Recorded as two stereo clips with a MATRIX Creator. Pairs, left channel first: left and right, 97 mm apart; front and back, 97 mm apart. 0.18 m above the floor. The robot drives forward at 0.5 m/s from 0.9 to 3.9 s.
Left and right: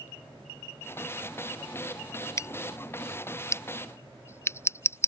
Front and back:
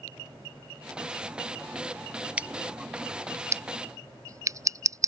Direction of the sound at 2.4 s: 115° left.